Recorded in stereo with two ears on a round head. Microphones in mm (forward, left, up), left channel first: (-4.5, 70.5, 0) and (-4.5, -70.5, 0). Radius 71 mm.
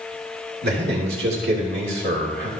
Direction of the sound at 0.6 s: 65° right (ahead or behind).